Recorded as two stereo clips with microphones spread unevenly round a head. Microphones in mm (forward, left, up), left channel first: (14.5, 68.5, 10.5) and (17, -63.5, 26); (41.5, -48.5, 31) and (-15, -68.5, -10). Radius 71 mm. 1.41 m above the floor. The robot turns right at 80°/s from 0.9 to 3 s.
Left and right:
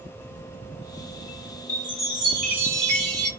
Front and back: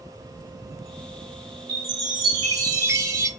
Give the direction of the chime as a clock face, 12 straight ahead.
7 o'clock.